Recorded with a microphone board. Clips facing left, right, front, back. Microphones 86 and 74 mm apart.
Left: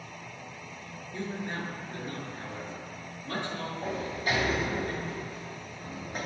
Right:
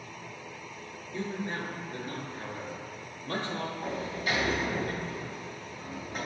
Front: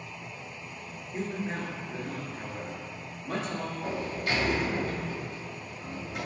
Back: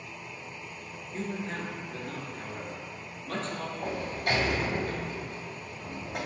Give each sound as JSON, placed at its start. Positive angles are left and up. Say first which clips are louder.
{"t": 1.1, "sound": "a man speaking", "louder": "right 1 dB, front 1 dB", "azimuth_deg": 50, "distance_m": 1.2}
{"t": 3.8, "sound": "a sliding door", "louder": "left 4 dB, back 2 dB", "azimuth_deg": 140, "distance_m": 1.7}